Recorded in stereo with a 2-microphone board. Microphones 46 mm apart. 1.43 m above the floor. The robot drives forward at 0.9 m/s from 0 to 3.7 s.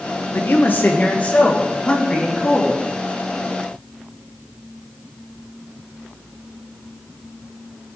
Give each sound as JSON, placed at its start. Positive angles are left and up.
{"t": 0.3, "sound": "a man speaking", "side_deg": 60, "distance_m": 1.2}